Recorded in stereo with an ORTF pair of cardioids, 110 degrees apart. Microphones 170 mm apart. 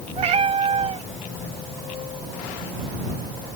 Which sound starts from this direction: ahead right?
A cat meowing, at 0.2 s.